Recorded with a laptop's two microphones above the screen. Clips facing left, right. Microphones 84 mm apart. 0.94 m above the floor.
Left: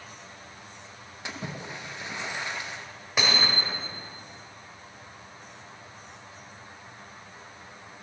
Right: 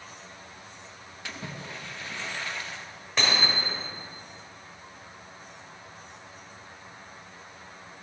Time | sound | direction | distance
1.2 | a splash | 20° left (ahead or behind) | 0.5 m
3.2 | hammering | 10° left (ahead or behind) | 1.9 m